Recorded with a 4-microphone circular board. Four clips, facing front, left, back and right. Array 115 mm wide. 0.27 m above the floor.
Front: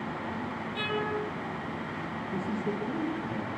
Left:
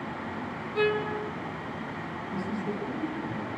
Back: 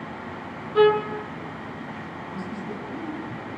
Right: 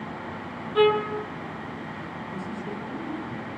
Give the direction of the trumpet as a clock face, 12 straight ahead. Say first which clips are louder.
Right 6 dB, back 15 dB; 5 o'clock.